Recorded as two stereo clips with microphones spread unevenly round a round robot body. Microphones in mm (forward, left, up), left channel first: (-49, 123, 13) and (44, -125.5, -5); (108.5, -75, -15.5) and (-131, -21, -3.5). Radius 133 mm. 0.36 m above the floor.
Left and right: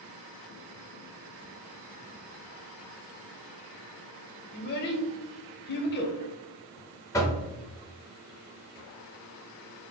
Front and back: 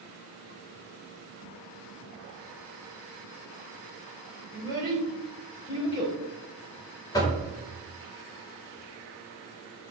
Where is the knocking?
35° left, 0.5 m.